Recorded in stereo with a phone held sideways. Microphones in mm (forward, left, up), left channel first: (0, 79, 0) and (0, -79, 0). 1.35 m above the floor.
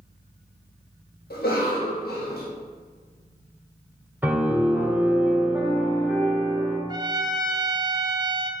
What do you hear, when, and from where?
1.3 s a cough: 80° left, 1.8 m
4.2 s a piano: 15° right (ahead or behind), 1.4 m
6.9 s a trumpet: 25° right (ahead or behind), 0.6 m